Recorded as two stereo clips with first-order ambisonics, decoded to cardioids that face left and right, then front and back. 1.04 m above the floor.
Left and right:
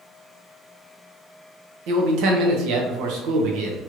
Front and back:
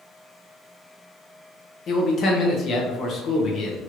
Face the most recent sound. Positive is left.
turn(degrees=-60)